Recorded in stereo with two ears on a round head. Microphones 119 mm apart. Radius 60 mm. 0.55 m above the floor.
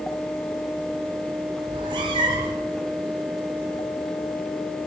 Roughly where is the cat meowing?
Right.